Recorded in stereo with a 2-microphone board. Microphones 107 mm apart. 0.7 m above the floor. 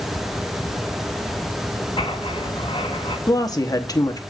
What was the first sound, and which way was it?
Writing, 50° left (ahead or behind).